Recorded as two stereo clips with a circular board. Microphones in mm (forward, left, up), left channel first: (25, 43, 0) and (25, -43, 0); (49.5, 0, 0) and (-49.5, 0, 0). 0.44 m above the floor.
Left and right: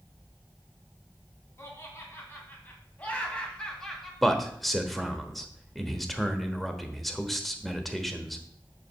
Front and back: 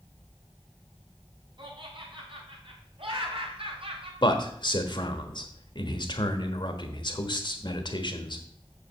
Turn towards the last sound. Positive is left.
turn(degrees=0)